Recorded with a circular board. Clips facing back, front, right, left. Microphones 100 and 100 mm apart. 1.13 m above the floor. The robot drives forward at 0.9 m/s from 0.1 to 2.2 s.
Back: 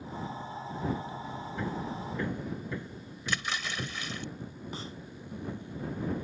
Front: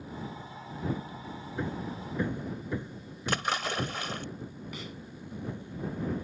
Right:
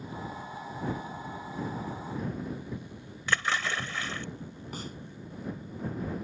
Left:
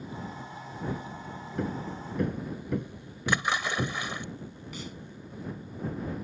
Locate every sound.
1.6 s hammering: 70° left
3.3 s a splash: 20° left
4.7 s a snare drum: 125° right